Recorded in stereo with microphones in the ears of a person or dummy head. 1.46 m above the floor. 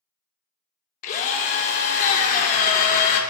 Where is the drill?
45° left (ahead or behind), 0.9 m.